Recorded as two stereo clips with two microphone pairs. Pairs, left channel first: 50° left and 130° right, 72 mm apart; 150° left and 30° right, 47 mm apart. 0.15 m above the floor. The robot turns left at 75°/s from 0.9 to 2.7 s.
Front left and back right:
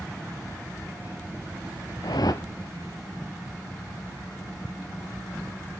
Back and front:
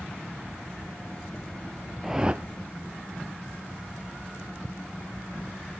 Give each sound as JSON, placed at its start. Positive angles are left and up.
{"t": 2.0, "sound": "a whoosh", "azimuth_deg": 50, "distance_m": 0.5}